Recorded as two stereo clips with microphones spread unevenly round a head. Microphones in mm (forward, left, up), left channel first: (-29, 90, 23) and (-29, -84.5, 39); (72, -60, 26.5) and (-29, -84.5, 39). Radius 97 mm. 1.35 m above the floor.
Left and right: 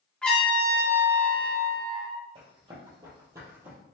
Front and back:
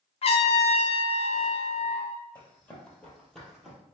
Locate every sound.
0.2 s a trumpet: 5° left, 0.6 m
2.4 s running footsteps: 55° right, 1.6 m; by 3.8 s 110° right, 1.3 m